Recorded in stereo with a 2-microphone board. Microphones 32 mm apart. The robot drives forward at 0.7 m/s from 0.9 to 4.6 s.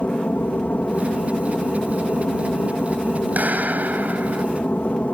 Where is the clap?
60° right (ahead or behind); by 4.5 s 65° right (ahead or behind).